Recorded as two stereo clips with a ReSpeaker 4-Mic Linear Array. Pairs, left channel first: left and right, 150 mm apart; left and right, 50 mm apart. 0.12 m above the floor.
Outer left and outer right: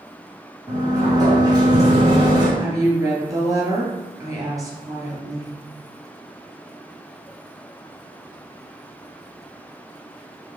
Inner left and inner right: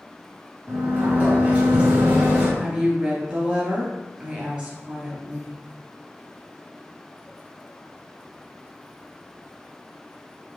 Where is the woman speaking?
25° right (ahead or behind), 1.7 m.